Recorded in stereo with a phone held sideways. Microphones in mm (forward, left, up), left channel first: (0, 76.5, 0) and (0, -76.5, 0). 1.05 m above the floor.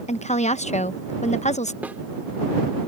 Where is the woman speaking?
50° left (ahead or behind).